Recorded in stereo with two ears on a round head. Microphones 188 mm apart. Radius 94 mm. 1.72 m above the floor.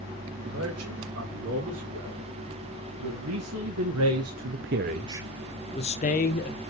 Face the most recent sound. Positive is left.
turn(degrees=45)  # may be behind; listen again after turning